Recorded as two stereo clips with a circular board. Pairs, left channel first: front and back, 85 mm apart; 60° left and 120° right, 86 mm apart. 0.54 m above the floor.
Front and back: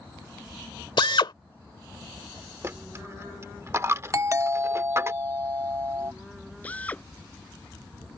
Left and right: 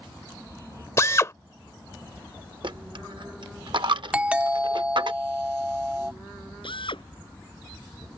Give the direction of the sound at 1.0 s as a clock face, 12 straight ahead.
12 o'clock.